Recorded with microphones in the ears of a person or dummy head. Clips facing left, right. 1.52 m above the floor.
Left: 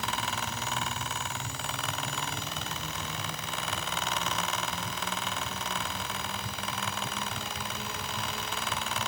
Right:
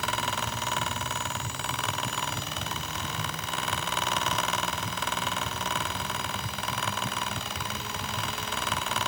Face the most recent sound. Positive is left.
No sound to turn to.